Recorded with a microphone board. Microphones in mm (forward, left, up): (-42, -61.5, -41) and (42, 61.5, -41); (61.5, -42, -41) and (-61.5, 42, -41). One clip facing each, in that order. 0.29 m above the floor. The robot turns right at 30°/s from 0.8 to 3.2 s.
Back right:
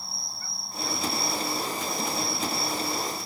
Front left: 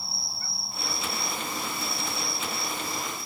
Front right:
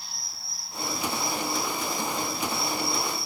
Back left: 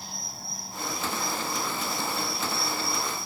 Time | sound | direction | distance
0.0 | an insect | 140° left | ?